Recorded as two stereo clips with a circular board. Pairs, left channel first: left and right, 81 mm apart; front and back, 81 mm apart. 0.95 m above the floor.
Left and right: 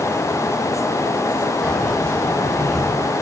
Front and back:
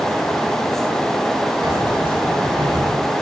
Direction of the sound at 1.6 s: 170° left.